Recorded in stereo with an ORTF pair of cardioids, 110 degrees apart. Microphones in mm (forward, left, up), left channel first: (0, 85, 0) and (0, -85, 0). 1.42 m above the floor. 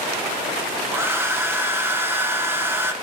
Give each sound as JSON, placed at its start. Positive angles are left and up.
{"t": 0.9, "sound": "a hair dryer", "azimuth_deg": -15, "distance_m": 0.9}